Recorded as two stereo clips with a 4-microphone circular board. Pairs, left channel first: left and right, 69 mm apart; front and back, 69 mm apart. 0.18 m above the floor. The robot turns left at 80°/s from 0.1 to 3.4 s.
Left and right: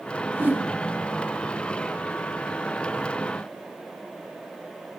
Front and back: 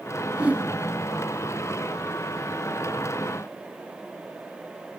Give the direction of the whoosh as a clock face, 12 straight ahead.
4 o'clock.